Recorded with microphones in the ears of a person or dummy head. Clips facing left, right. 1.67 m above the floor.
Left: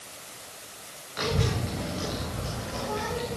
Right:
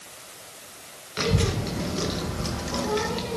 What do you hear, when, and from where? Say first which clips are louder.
1.2 s a child speaking: right 3 dB; 45° right (ahead or behind), 1.7 m; by 3.4 s 75° right (ahead or behind), 1.8 m